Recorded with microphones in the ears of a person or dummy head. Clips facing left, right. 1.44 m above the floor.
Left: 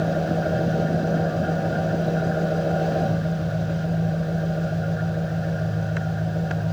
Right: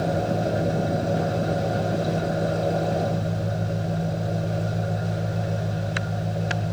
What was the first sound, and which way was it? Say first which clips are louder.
An engine running: left 1 dB; 15° left (ahead or behind).